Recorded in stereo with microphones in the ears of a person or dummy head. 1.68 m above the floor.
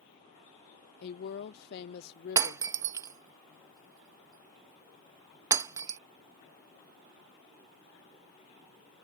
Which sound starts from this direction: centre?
Breaking glass, at 2.4 s.